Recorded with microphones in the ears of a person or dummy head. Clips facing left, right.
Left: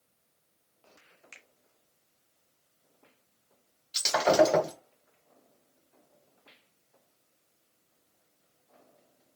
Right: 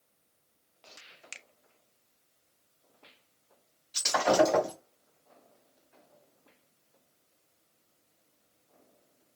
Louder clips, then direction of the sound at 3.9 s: Left 2 dB; 50° left (ahead or behind).